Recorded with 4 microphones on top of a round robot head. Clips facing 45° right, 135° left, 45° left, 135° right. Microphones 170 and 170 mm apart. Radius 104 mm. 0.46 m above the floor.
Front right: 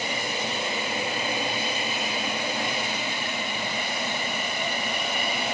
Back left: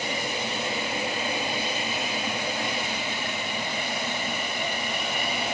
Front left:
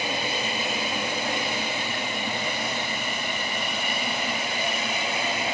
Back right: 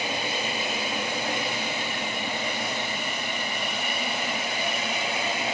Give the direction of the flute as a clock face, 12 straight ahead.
I don't hear a flute.